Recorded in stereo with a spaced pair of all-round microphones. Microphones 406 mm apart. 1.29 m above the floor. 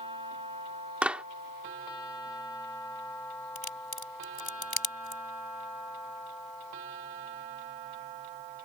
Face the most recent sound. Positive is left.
turn(degrees=60)  # may be behind; listen again after turning